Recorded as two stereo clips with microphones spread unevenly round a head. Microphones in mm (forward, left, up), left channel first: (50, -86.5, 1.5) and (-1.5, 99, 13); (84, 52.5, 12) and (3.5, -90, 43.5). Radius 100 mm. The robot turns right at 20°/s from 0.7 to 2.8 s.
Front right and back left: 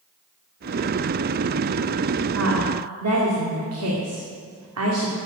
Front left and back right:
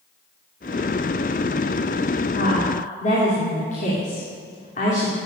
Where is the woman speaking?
105° left, 2.5 m; by 5.2 s 110° left, 2.5 m.